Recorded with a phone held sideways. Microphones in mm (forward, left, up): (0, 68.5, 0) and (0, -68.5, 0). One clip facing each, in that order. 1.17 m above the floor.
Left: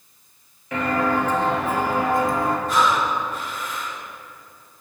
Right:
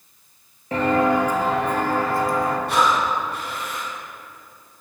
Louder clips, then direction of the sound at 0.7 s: Right 3 dB; 35° right (ahead or behind).